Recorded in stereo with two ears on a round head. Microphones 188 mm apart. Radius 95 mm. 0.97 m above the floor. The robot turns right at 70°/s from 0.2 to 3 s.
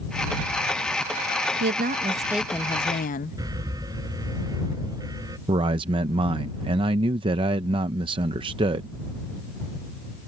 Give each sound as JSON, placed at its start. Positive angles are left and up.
{"t": 1.6, "sound": "a woman speaking", "azimuth_deg": -60}
{"t": 3.4, "sound": "an alarm", "side_deg": -15}
{"t": 5.5, "sound": "a man speaking", "side_deg": -25}